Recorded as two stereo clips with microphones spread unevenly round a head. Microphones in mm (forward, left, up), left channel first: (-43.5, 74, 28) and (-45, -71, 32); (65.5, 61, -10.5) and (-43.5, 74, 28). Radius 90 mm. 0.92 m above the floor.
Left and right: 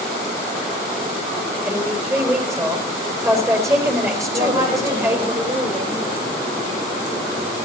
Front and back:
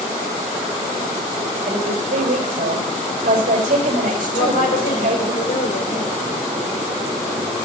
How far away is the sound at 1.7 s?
About 5.5 m.